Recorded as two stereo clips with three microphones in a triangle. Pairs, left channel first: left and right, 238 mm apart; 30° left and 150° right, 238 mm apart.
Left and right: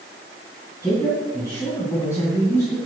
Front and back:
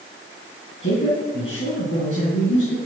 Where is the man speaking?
15° left, 2.5 m.